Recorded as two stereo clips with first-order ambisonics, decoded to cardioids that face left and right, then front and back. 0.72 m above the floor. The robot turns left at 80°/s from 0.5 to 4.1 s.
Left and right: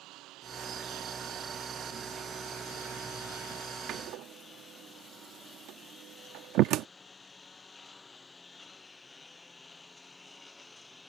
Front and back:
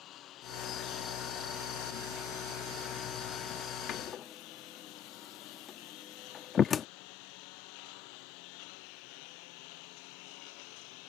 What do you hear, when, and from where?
0.0 s a lawn mower: 50° right; by 11.1 s 10° left
3.9 s a door slam: 45° right; by 6.9 s 60° right